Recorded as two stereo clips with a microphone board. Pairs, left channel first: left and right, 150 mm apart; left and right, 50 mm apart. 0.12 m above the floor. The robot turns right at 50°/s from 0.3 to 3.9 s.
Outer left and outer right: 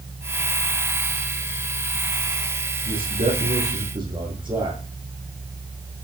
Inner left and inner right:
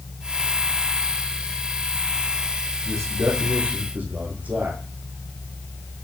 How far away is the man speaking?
About 5.5 m.